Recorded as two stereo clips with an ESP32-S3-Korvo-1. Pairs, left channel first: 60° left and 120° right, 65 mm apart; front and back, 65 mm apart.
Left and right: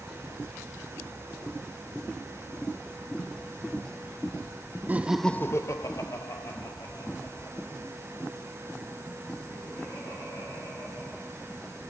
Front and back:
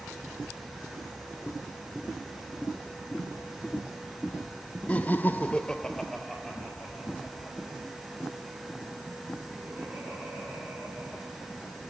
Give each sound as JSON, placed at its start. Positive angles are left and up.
{"t": 4.9, "sound": "laughter", "azimuth_deg": -65, "distance_m": 0.8}